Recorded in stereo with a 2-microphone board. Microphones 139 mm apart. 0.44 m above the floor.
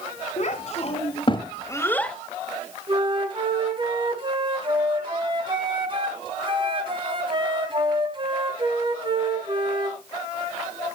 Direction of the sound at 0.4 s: 55° left (ahead or behind).